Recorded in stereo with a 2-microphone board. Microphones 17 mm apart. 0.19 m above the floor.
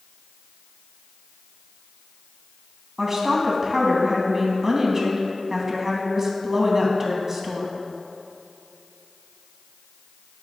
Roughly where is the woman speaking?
Right.